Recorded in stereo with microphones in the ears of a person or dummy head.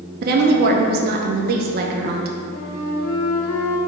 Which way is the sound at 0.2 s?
55° right (ahead or behind).